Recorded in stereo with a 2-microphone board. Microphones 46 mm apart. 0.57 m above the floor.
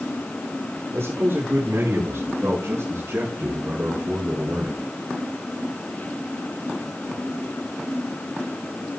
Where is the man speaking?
65° right (ahead or behind), 5 m; by 4.8 s 75° right (ahead or behind), 3.5 m.